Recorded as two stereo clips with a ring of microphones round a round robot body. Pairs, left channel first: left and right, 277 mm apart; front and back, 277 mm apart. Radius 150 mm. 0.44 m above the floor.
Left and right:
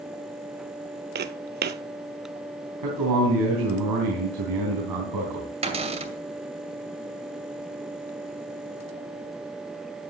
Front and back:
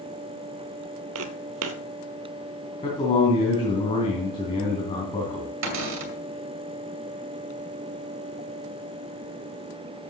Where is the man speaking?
75° right, 3.5 m.